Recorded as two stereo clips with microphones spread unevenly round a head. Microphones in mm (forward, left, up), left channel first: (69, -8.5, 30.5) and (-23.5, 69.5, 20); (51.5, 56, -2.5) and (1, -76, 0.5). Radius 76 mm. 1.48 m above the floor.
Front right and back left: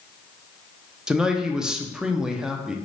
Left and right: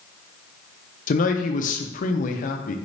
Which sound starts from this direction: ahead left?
A man speaking, at 1.1 s.